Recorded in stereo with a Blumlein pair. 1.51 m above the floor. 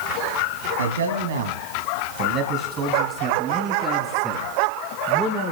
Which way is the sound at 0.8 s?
70° right.